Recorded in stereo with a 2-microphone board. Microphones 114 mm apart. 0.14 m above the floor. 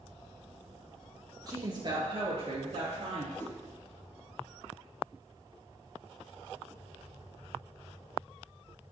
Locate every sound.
1.5 s a woman speaking: 35° right (ahead or behind), 2 m; by 3.3 s 60° right (ahead or behind), 2.5 m
3.4 s a whoosh: 20° left (ahead or behind), 1.1 m